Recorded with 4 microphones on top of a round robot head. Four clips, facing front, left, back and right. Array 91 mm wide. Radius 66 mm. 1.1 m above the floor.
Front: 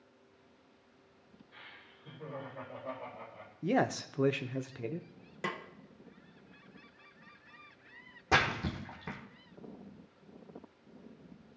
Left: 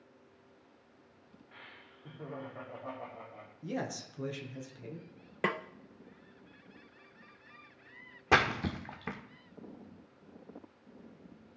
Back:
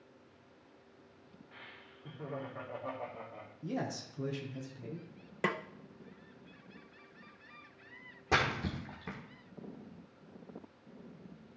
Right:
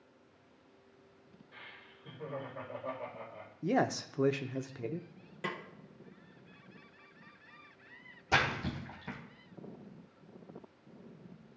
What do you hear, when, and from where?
1.5 s laughter: 125° left, 2.5 m; by 3.5 s 155° left, 3 m
3.6 s a man speaking: 40° right, 0.6 m
5.4 s a snare drum: 120° left, 0.6 m
8.3 s a splash: 85° left, 1.2 m